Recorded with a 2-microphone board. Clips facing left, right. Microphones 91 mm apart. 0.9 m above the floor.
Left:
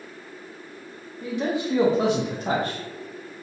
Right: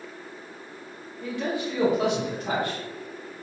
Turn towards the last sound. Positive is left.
turn(degrees=40)  # may be behind; listen again after turning